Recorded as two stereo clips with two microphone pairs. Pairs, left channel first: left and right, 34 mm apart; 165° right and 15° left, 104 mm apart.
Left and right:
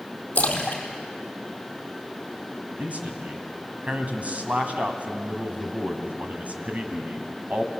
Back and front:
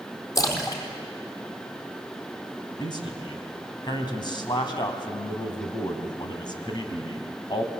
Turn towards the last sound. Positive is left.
turn(degrees=-130)